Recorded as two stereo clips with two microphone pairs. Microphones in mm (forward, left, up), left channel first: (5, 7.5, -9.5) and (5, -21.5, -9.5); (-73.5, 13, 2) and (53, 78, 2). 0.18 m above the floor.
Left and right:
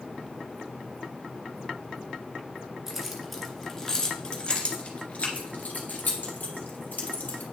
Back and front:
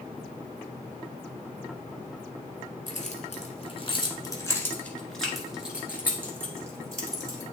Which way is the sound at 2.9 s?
170° right.